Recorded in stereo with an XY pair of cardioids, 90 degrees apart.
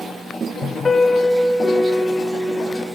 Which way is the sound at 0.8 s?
25° left.